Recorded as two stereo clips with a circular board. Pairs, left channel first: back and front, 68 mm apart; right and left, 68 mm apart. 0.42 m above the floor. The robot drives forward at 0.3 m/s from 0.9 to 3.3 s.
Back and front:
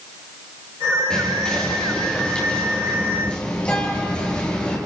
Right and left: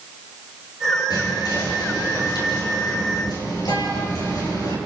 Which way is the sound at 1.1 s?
100° right.